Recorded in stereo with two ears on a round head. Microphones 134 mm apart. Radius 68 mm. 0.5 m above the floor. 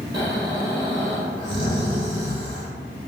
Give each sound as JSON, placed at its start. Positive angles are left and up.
{"t": 0.1, "sound": "snoring", "side_deg": -30, "distance_m": 1.8}